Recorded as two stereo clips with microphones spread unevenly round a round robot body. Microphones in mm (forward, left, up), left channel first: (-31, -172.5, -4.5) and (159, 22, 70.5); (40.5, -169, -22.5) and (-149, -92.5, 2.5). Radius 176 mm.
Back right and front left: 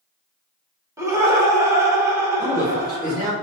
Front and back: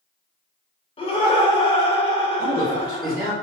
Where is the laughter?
50° right, 0.9 m.